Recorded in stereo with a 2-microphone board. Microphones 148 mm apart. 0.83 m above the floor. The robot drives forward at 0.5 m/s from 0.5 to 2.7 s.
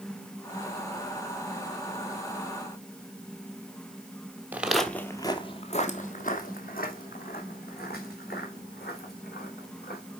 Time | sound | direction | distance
4.5 | footsteps | 10° right (ahead or behind) | 1.3 m